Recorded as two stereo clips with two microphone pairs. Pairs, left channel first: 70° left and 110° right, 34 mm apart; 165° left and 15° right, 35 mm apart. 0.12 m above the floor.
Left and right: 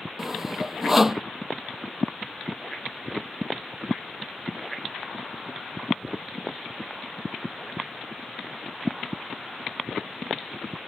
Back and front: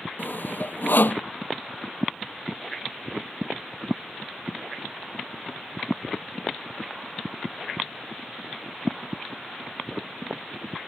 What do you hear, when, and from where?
0.2 s sawing: 165° left